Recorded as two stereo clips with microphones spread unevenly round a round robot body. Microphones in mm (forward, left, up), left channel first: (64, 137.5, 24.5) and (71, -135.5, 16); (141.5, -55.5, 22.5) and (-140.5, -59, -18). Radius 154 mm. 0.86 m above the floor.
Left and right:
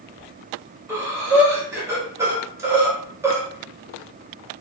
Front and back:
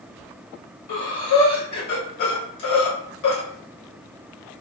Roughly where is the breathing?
Ahead.